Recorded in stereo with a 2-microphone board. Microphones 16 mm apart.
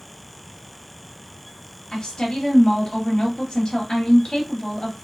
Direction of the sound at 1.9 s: 60° left (ahead or behind).